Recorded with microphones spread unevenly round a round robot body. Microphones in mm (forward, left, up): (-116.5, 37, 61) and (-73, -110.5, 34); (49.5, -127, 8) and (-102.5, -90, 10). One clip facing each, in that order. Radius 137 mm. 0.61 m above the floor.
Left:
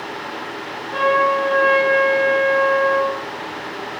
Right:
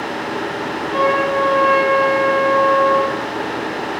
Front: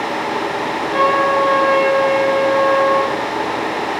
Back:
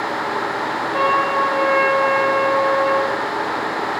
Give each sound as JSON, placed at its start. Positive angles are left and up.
{"t": 0.9, "sound": "a trumpet", "azimuth_deg": 45, "distance_m": 4.0}